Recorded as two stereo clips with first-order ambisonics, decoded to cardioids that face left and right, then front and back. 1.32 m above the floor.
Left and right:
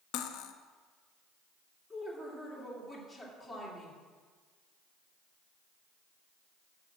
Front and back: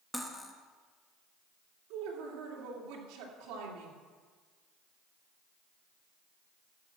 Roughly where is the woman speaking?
Behind.